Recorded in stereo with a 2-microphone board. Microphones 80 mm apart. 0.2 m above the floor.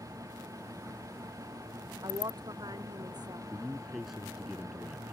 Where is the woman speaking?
60° right (ahead or behind).